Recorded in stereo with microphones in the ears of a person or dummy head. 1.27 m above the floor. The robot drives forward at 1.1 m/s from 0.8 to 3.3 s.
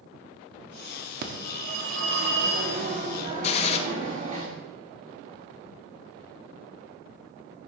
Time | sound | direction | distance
1.2 | a phone ringing | 55° right (ahead or behind) | 1.5 m
3.4 | a gunshot | 35° left (ahead or behind) | 1.4 m